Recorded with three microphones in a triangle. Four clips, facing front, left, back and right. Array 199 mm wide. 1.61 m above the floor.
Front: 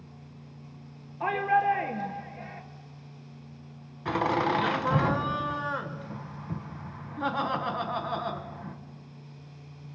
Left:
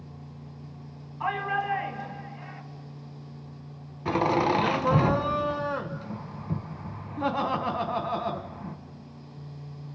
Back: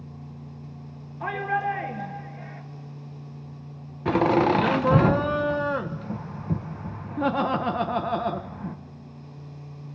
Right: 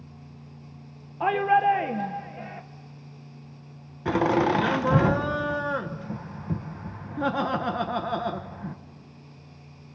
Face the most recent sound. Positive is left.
turn(degrees=-160)